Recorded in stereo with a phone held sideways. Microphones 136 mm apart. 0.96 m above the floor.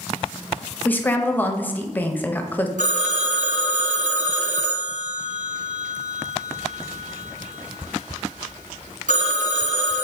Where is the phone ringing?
70° right (ahead or behind), 0.6 m.